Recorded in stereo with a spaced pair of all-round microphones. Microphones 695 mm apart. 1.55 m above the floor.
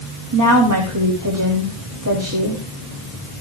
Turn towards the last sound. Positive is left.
turn(degrees=-25)  # may be behind; listen again after turning